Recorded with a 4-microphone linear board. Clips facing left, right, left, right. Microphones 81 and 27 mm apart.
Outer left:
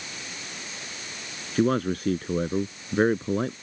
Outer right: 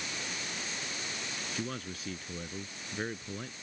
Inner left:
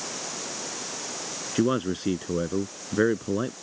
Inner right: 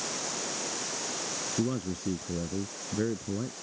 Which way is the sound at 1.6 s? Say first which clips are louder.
Outer left 19 dB, inner left 8 dB; 50° left (ahead or behind).